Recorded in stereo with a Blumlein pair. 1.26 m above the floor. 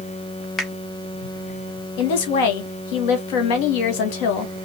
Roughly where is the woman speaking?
Ahead left.